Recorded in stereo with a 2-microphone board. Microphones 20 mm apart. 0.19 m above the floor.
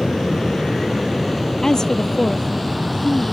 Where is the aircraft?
25° left (ahead or behind); by 3.3 s centre (ahead or behind).